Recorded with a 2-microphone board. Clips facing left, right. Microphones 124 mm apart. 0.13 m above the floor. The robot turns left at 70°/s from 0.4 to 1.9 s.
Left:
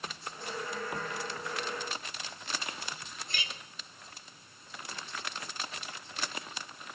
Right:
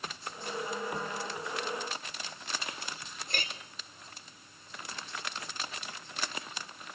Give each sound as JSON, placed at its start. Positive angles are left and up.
{"t": 3.3, "sound": "a clink", "side_deg": -50, "distance_m": 1.4}